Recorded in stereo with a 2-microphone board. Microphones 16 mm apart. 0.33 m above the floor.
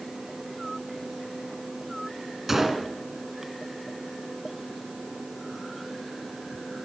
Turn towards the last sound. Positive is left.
turn(degrees=-15)  # may be behind; listen again after turning